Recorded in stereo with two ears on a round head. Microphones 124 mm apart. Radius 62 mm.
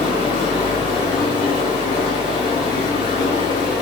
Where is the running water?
40° left (ahead or behind), 1.1 m.